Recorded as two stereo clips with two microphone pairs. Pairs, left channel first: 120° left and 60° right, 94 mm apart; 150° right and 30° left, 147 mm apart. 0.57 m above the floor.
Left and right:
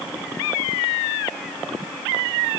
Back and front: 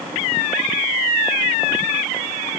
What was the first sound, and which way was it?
Only background noise.